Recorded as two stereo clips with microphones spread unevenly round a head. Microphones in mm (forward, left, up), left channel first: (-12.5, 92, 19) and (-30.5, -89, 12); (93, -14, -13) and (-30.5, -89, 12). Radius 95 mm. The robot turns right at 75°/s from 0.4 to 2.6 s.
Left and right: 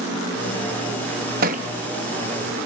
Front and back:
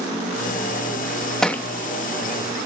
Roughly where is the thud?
Ahead right.